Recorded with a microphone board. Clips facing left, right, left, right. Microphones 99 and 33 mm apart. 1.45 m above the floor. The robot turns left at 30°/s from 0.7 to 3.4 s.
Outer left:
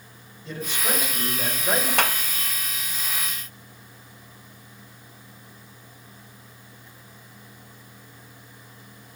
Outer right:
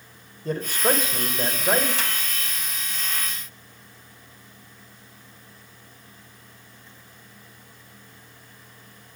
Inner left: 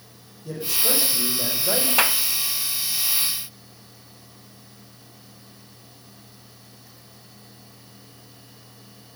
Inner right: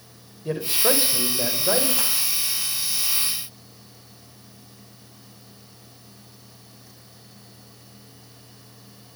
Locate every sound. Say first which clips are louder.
0.5 s a man speaking: outer right 6 dB, inner right 4 dB; 135° right, 5 m; by 1.9 s 170° right, 5 m
2.0 s a clap: outer left 7 dB, inner left 7 dB; 65° left (ahead or behind), 0.9 m